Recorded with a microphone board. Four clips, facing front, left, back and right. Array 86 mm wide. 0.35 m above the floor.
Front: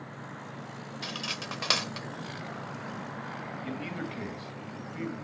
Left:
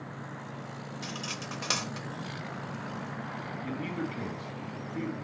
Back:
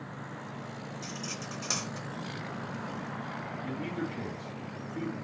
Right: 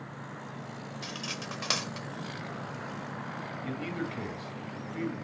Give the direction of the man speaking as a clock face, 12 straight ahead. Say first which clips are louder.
Left 1 dB, back 2 dB; 1 o'clock.